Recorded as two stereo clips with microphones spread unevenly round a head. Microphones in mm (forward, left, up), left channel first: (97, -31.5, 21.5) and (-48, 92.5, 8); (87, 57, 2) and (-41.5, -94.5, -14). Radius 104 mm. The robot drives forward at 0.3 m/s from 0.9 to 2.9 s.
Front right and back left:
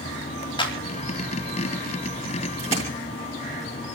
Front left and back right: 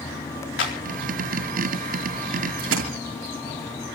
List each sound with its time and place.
0.6 s a clap: 25° left, 4 m
2.6 s a splash: 160° right, 5 m